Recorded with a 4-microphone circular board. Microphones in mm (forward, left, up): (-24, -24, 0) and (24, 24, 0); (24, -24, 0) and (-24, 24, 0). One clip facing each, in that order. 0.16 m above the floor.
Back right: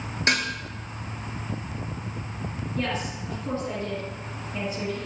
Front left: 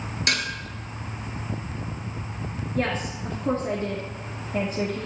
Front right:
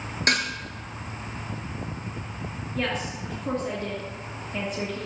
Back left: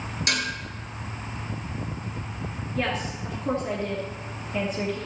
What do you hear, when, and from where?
0.3 s dishes clattering: 80° right, 2 m
2.8 s a woman speaking: 50° left, 2.5 m